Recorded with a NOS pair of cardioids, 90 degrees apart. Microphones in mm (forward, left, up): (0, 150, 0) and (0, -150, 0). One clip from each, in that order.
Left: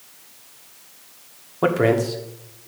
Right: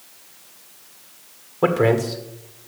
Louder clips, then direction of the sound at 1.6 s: Right 1 dB; 5° left.